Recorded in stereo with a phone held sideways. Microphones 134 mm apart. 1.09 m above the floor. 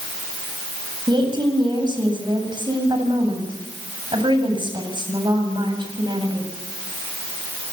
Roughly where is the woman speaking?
Right.